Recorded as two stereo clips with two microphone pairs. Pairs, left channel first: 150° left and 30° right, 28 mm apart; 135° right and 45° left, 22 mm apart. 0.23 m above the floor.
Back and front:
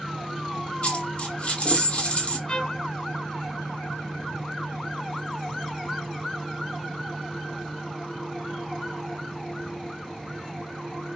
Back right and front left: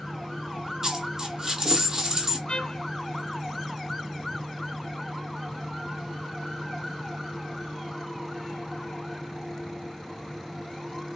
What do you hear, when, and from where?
0.8 s a dropped coin: 110° left, 1.1 m
2.5 s a trumpet: 150° right, 0.9 m